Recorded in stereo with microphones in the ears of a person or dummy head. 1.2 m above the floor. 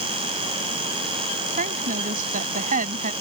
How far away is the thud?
I don't hear a thud.